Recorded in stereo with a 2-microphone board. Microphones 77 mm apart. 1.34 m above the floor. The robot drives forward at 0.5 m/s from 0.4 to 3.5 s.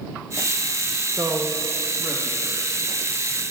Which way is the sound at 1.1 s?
40° right (ahead or behind).